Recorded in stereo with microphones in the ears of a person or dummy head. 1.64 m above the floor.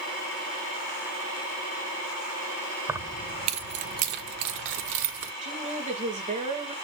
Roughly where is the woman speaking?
Right.